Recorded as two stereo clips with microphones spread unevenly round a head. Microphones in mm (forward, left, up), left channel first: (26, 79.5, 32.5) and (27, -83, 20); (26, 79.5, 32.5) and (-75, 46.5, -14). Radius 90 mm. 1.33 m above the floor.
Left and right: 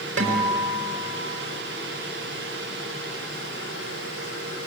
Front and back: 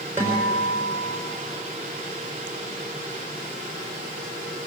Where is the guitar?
85° right, 5 m.